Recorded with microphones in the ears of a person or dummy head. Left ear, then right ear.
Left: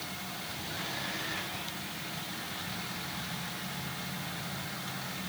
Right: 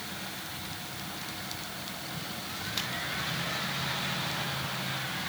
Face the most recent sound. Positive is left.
No sound to turn to.